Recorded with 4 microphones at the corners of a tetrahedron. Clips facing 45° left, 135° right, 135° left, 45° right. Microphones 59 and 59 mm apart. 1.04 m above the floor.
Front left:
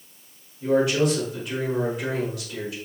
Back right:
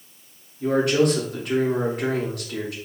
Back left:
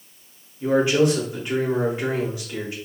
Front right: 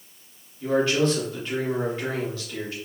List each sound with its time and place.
0.6 s a man speaking: 150° right, 3 m